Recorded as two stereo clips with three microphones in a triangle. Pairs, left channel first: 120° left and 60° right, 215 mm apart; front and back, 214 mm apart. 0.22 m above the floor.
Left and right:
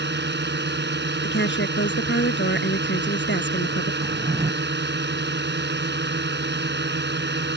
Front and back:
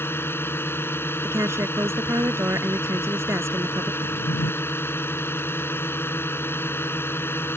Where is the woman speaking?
105° left.